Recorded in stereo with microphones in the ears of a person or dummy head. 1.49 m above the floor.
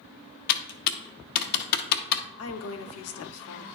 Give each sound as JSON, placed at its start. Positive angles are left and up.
{"t": 0.5, "sound": "typing on a keyboard", "side_deg": 55, "distance_m": 0.7}
{"t": 2.4, "sound": "a woman speaking", "side_deg": 75, "distance_m": 0.7}